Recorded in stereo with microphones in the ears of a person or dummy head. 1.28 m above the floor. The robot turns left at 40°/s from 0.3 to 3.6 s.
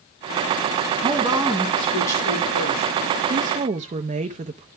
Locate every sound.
1.0 s a woman speaking: 155° right, 1.9 m; by 2.9 s 130° left, 1.9 m
3.3 s a woman speaking: 40° right (ahead or behind), 0.6 m; by 4.7 s 30° right (ahead or behind), 0.6 m